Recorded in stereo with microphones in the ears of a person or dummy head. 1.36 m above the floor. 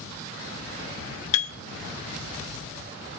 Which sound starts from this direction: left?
A piano, at 1.3 s.